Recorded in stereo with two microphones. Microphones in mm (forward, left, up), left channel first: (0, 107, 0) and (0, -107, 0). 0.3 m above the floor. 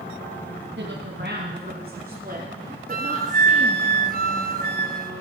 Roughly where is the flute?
Right.